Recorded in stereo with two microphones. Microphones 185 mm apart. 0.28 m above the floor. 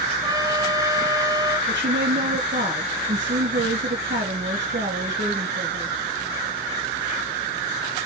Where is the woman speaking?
75° right (ahead or behind), 3.5 m.